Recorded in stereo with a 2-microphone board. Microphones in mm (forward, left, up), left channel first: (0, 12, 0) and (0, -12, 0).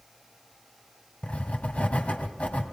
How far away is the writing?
About 2 m.